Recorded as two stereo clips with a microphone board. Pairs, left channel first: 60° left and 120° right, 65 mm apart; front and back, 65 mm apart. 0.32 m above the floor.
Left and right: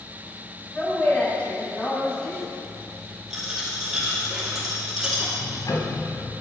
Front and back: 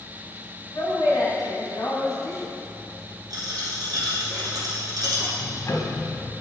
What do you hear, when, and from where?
0.7 s a woman speaking: 10° right, 2.5 m
3.3 s a dropped coin: 160° left, 2.5 m
5.4 s ticking: 40° left, 1.0 m